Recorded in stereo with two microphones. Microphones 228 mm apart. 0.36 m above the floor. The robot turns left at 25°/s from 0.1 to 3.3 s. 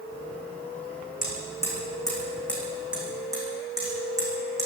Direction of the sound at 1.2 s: 40° left (ahead or behind).